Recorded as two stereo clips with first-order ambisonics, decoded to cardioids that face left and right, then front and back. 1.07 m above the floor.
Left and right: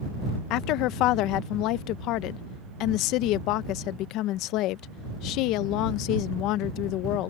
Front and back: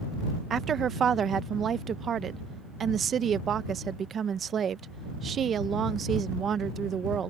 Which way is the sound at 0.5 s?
120° left.